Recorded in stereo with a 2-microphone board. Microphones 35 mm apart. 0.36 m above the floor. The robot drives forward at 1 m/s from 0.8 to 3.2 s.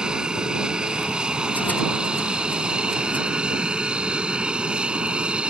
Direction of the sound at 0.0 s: 25° right (ahead or behind).